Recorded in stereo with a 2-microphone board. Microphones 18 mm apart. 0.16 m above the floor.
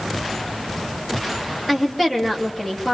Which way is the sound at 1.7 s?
5° left (ahead or behind).